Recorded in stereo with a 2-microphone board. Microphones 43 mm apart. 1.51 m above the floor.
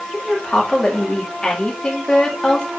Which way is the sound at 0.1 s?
20° left (ahead or behind).